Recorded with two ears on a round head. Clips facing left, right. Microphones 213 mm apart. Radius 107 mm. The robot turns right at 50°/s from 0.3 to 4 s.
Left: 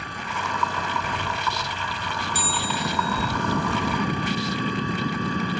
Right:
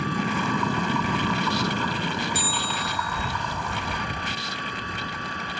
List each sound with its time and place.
0.0 s an engine running: 115° right; by 5.6 s 70° left
2.4 s a bell: 80° left; by 3.3 s 130° left